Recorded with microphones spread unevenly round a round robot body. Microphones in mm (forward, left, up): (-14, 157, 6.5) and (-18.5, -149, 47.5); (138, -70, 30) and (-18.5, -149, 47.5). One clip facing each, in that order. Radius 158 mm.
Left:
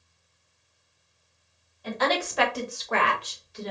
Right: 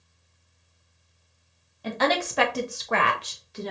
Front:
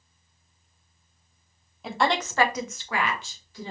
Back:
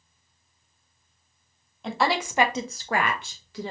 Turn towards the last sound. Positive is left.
turn(degrees=-135)